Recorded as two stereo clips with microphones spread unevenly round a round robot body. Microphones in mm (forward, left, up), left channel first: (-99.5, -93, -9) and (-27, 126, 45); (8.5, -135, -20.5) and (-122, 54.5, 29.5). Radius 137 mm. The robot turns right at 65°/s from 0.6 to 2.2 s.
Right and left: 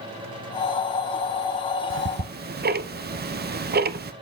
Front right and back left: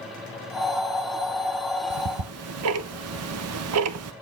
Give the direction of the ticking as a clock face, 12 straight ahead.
9 o'clock.